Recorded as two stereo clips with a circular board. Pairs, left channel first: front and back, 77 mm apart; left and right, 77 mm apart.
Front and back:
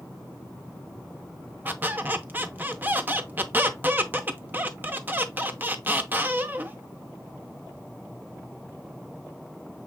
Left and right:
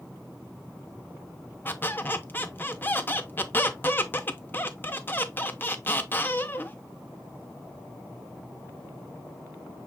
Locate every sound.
1.6 s a squeak: 135° left, 0.6 m